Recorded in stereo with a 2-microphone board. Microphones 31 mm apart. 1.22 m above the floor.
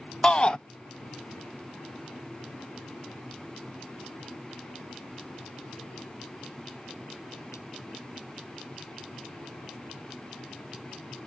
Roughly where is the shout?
Left.